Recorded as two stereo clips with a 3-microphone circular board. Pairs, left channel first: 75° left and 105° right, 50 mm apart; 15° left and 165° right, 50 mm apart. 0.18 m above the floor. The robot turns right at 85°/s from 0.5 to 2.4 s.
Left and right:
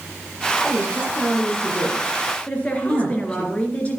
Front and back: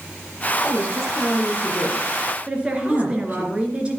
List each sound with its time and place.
0.6 s a woman speaking: 5° right, 6 m; by 3.5 s 145° left, 6 m
2.5 s a woman speaking: 130° left, 3.5 m